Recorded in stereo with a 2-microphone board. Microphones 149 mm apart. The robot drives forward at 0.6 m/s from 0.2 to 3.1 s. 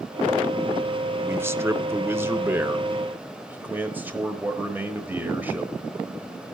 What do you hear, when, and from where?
1.2 s a man speaking: 15° right (ahead or behind), 1.0 m